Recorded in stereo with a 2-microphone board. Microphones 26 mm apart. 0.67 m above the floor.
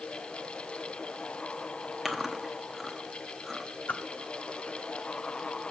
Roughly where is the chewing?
Centre.